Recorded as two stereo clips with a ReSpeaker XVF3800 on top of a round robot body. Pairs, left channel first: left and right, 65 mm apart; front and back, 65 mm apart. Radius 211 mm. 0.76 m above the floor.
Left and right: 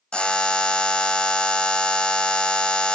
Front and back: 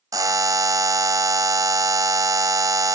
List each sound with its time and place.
0.1 s a buzzer: 165° left, 1.3 m